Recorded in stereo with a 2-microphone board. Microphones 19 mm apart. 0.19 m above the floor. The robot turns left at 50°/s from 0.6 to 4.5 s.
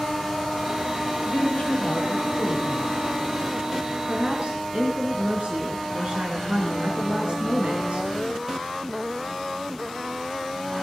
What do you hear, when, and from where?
1.2 s a woman speaking: 95° left, 5.5 m; by 2.9 s 10° left, 5.5 m
4.1 s a woman speaking: 50° right (ahead or behind), 2.5 m; by 8.1 s 60° right (ahead or behind), 2.5 m